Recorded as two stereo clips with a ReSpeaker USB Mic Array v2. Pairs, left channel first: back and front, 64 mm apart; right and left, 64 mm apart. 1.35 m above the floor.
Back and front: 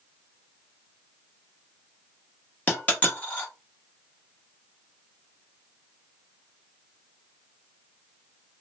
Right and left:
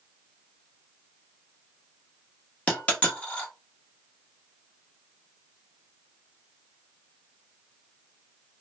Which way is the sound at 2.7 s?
140° right.